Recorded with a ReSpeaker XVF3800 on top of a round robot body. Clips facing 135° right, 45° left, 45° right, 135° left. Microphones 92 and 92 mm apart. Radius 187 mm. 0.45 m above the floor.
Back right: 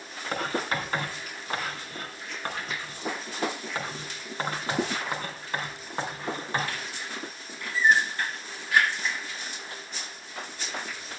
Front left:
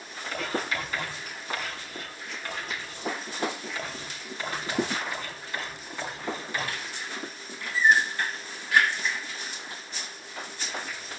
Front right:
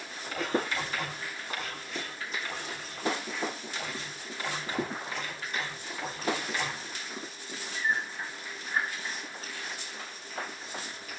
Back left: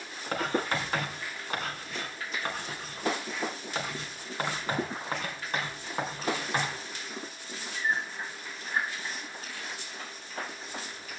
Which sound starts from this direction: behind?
Writing, at 0.3 s.